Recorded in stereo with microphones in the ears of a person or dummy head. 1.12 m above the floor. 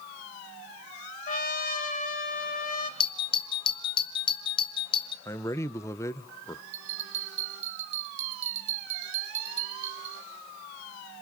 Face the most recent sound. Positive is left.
turn(degrees=-45)  # may be behind; listen again after turning